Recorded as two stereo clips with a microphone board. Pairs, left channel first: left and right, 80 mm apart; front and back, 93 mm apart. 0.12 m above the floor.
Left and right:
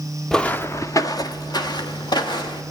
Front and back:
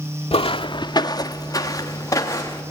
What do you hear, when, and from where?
0.3 s footsteps: 5° left, 0.7 m; by 2.6 s 60° left, 3.5 m